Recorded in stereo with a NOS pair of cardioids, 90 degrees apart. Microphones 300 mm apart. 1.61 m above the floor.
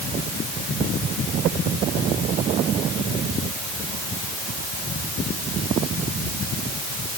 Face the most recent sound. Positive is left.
No sound to turn to.